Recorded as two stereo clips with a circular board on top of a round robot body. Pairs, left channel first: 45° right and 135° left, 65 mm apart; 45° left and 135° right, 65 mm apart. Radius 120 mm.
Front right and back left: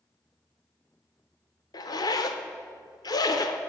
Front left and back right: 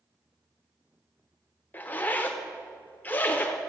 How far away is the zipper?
About 0.8 m.